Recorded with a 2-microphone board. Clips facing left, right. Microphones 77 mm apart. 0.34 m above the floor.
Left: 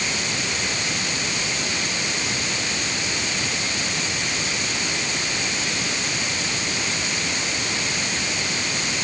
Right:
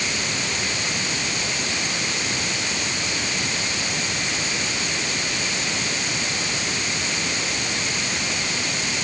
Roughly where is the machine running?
I don't hear a machine running.